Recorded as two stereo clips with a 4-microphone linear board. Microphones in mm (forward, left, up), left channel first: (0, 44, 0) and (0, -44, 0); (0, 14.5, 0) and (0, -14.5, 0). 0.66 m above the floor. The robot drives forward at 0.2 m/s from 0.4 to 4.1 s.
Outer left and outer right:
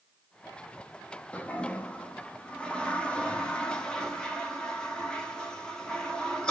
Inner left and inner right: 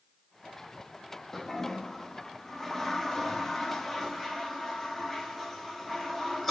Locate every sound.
1.3 s a toilet flushing: 15° left (ahead or behind), 0.6 m; by 6.5 s 10° left (ahead or behind), 0.9 m